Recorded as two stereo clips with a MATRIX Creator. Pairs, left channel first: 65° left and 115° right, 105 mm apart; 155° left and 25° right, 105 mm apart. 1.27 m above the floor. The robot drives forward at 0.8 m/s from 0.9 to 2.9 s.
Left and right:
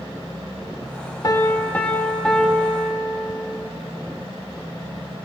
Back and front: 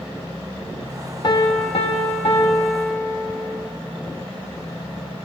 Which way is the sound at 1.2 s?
115° left.